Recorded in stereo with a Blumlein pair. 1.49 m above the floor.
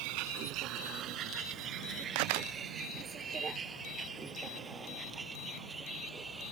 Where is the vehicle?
45° right; by 6.5 s 10° right.